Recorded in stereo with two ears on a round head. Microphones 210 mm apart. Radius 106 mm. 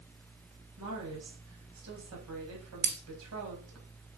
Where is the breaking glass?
45° right (ahead or behind), 1.8 m.